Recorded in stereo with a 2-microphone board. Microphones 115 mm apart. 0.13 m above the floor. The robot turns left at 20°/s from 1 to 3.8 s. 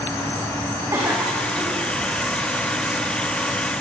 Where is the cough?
25° right (ahead or behind), 10 m; by 1.8 s 10° right (ahead or behind), 10 m.